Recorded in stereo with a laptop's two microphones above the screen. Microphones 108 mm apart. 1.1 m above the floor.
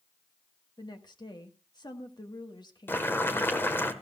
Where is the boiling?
20° left (ahead or behind), 1.2 m.